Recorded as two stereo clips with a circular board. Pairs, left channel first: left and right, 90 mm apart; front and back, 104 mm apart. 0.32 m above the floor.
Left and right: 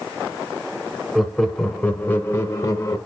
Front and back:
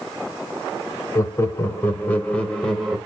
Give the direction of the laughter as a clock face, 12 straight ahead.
12 o'clock.